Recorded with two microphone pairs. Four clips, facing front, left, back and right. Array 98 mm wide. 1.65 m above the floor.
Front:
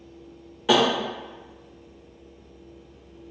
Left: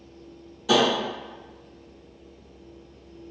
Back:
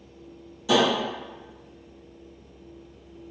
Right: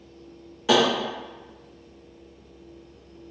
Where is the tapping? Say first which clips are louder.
Right 1 dB, front 1 dB; 50° right, 1.6 m.